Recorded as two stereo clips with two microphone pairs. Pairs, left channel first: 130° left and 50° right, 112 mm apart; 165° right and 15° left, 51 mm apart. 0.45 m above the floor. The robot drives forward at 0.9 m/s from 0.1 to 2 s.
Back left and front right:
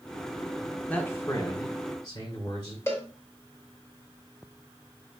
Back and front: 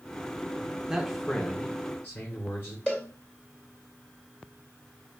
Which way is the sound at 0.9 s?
70° left.